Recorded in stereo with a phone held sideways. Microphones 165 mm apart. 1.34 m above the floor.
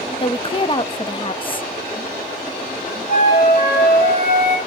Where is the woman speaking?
30° left (ahead or behind), 0.7 m.